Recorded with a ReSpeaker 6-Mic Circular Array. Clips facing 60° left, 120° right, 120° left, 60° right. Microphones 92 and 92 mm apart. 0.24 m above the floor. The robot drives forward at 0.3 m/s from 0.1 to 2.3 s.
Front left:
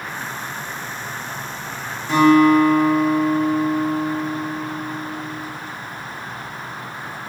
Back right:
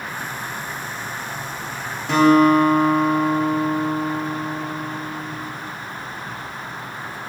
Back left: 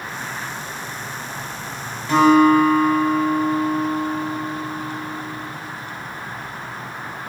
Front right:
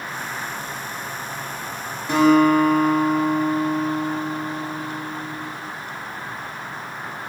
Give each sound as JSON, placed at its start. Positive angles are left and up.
{"t": 2.1, "sound": "a guitar", "azimuth_deg": -130, "distance_m": 1.6}